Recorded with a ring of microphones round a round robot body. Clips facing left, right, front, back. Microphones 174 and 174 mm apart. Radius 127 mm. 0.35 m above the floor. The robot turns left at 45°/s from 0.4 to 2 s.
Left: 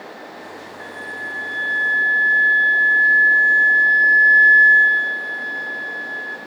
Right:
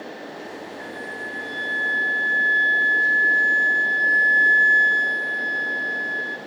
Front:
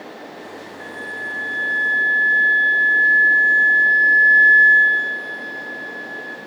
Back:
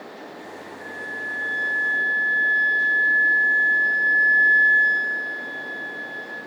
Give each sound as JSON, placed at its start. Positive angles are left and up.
{"t": 0.8, "sound": "a flute", "azimuth_deg": -20, "distance_m": 3.5}